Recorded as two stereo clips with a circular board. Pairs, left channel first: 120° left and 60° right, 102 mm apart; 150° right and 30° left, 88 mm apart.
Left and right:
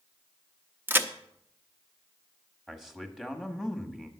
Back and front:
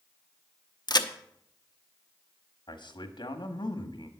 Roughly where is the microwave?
I don't hear a microwave.